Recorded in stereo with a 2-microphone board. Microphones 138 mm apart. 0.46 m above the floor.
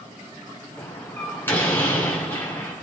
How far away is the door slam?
About 3 m.